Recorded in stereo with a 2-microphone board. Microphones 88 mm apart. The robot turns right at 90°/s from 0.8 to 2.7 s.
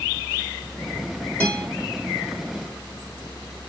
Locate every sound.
1.4 s a guitar: 20° left (ahead or behind), 3.5 m; by 1.6 s 45° left (ahead or behind), 3.5 m